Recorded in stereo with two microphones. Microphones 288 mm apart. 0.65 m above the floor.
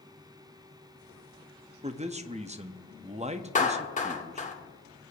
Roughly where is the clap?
Left.